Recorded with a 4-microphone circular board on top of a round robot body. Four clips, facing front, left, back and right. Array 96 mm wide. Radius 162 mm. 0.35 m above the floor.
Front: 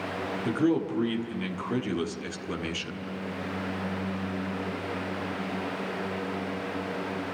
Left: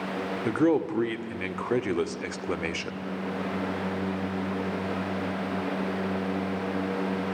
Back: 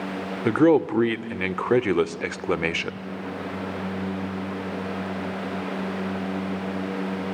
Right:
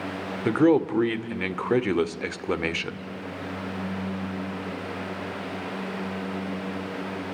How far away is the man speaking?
About 2 m.